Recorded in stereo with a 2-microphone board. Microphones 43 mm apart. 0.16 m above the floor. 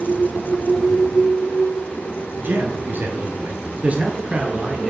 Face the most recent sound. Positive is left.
turn(degrees=-15)  # may be behind; listen again after turning